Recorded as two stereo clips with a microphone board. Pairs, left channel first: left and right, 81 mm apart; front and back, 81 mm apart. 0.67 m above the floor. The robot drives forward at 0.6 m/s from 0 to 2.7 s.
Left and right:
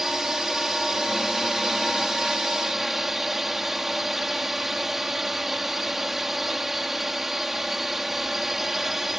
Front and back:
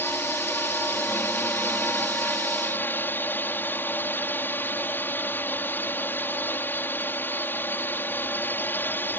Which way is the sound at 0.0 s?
5° right.